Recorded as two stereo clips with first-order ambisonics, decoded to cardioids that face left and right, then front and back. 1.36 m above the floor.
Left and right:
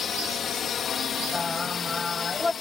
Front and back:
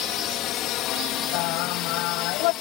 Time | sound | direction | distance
0.0 | a drone | 30° left | ?
1.3 | singing | 10° left | ?